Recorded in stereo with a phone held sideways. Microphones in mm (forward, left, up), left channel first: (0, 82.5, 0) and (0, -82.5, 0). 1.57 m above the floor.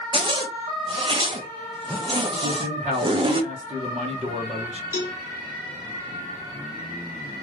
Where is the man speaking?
40° right (ahead or behind), 1.3 m.